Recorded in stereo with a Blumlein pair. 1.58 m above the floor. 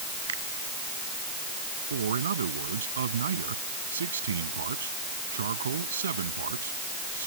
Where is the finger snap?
65° right.